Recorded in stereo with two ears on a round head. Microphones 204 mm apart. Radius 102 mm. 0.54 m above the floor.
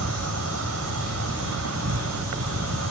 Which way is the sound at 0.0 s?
70° right (ahead or behind).